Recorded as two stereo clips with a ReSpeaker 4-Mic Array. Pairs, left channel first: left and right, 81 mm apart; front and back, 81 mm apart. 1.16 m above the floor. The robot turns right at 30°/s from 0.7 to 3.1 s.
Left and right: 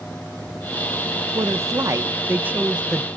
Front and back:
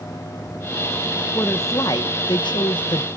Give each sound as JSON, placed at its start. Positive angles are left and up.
{"t": 1.4, "sound": "a woman speaking", "azimuth_deg": -55, "distance_m": 0.9}